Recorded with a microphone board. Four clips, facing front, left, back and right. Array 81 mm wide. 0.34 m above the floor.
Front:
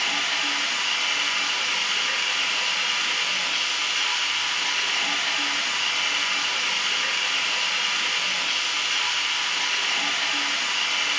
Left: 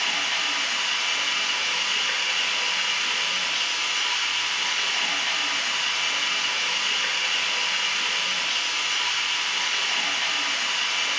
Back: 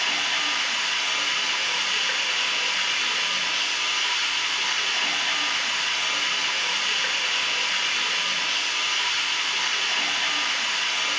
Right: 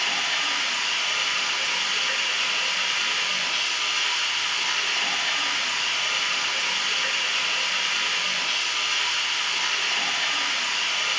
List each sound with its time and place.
0.0 s running water: 20° right, 1.5 m